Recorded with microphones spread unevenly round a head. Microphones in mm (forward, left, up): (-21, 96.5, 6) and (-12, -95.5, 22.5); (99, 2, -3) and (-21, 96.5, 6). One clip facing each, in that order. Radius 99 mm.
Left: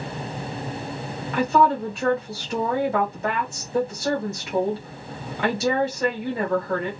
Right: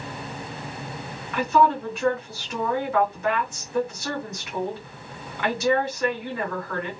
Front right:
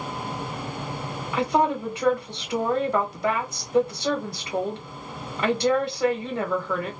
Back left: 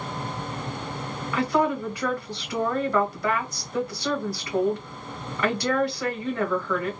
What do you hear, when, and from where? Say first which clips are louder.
1.3 s a woman speaking: left 1 dB, front right 1 dB; 30° left, 1.2 m